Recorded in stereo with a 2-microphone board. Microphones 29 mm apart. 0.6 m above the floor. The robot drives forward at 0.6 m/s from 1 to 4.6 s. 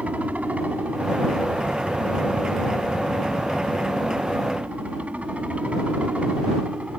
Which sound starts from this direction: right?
A helicopter, at 0.0 s.